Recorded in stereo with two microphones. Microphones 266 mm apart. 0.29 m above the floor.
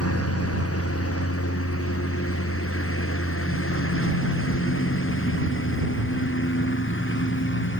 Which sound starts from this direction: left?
A lawn mower, at 0.0 s.